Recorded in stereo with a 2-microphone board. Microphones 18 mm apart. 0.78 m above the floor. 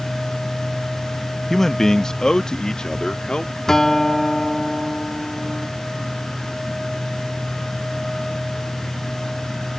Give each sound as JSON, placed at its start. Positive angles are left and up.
{"t": 1.5, "sound": "a man speaking", "side_deg": 20}
{"t": 3.7, "sound": "a guitar", "side_deg": 30}